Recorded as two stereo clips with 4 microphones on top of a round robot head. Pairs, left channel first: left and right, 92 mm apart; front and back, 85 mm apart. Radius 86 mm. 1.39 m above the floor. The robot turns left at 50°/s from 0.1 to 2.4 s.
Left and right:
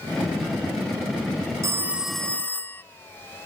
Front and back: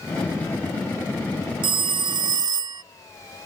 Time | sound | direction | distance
1.6 | a phone ringing | 155° right | ?